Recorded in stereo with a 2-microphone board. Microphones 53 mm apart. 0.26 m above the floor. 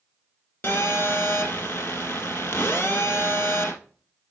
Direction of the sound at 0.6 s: 40° left (ahead or behind).